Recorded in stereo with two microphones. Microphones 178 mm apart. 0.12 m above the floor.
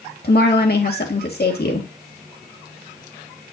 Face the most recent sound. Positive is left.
turn(degrees=60)  # may be behind; listen again after turning